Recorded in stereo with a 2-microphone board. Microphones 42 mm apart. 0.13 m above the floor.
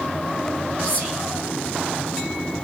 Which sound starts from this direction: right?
Whispering, at 0.8 s.